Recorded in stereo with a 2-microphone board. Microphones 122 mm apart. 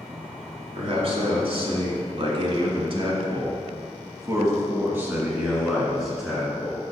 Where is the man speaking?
50° right (ahead or behind), 2 m; by 6.8 s 5° left (ahead or behind), 2 m.